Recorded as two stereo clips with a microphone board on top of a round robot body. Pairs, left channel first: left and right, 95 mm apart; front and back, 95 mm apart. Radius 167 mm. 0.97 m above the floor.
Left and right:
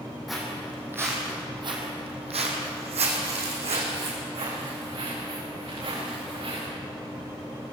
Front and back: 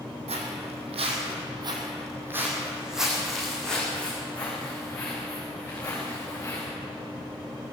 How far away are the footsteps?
About 3 m.